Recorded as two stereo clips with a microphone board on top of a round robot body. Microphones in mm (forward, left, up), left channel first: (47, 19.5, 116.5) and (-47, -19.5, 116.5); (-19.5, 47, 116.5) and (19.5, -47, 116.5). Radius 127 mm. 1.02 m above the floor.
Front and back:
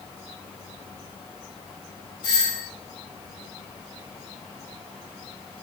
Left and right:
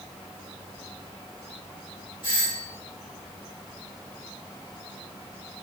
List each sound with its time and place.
2.2 s a doorbell: 70° left, 5.5 m